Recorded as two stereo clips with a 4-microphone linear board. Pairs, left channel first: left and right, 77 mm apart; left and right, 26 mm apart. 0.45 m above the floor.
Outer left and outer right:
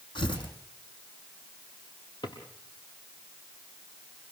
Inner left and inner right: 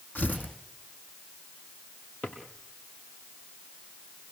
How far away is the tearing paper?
About 5.5 m.